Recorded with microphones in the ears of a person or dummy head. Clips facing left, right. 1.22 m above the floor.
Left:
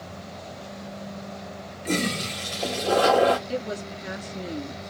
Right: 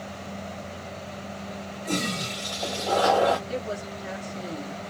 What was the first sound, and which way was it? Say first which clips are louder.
A toilet flushing: left 3 dB; 40° left (ahead or behind).